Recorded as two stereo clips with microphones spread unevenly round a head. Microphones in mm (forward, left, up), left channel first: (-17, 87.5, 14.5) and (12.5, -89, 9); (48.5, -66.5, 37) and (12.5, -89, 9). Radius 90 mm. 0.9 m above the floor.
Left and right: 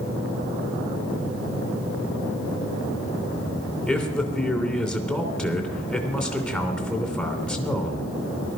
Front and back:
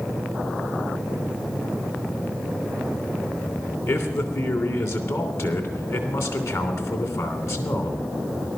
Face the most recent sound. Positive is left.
turn(degrees=15)